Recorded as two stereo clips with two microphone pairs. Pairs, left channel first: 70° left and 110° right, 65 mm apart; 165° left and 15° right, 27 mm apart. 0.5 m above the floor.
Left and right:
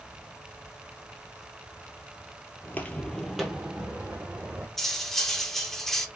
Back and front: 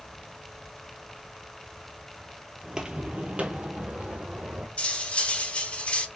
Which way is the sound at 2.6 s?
30° left.